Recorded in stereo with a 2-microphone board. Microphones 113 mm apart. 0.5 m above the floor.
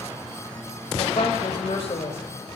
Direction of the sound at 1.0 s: 60° left (ahead or behind).